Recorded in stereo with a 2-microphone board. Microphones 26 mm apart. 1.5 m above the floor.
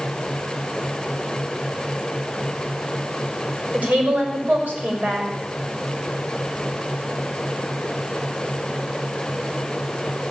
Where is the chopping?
No chopping in this recording.